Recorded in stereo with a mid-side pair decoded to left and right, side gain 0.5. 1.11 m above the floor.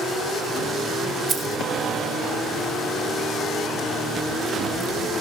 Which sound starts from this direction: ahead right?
Keys jangling, at 1.3 s.